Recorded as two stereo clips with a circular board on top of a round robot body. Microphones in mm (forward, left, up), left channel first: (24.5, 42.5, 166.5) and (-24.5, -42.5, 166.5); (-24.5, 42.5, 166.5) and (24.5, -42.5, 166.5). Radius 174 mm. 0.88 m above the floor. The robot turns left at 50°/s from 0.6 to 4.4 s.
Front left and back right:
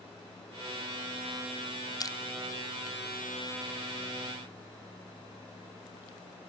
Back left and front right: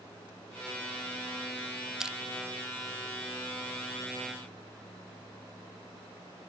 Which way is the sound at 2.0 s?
25° left.